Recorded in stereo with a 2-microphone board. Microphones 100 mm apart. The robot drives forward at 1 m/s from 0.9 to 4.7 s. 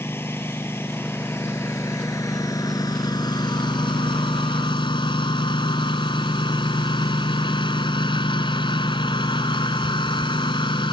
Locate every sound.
0.0 s a lawn mower: 25° left (ahead or behind); by 10.9 s 55° left (ahead or behind)